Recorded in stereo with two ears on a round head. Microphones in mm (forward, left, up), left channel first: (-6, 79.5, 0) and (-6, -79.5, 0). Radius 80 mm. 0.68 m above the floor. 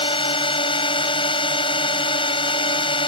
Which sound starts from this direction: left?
A drone, at 0.0 s.